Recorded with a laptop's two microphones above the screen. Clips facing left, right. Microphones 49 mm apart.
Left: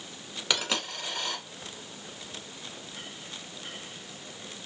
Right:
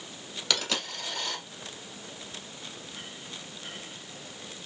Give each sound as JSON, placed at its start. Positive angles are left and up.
{"t": 0.5, "sound": "a dropped coin", "side_deg": 15, "distance_m": 1.3}